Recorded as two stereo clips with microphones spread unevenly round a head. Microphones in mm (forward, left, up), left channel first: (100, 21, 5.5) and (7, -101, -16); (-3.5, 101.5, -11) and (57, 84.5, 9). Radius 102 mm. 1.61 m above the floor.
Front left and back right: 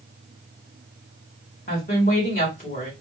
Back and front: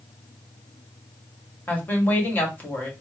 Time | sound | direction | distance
1.7 | a woman speaking | 100° left | 1.9 m